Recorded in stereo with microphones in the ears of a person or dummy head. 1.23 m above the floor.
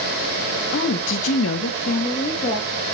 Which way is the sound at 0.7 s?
55° left (ahead or behind).